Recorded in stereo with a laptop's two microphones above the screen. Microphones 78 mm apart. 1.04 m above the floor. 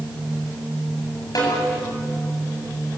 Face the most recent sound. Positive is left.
turn(degrees=60)  # may be behind; listen again after turning